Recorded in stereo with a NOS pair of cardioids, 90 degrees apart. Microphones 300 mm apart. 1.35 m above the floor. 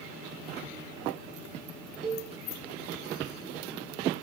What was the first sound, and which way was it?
A cowbell, 35° right.